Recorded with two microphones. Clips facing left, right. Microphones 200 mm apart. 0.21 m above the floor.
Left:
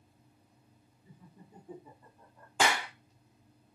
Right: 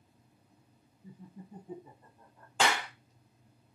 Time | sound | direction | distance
1.0 | laughter | 35° right (ahead or behind) | 2 m
2.6 | a clap | 10° left (ahead or behind) | 0.9 m